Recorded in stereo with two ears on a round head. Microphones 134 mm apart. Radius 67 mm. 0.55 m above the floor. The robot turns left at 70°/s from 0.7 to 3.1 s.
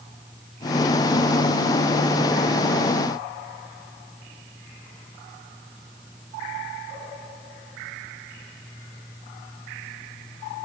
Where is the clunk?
I don't hear a clunk.